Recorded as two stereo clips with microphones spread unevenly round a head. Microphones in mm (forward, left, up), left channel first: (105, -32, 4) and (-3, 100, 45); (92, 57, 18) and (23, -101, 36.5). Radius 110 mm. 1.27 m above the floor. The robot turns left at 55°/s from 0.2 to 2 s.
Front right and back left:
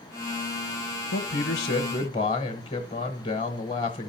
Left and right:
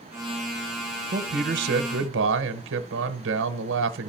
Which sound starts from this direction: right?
A man speaking, at 1.1 s.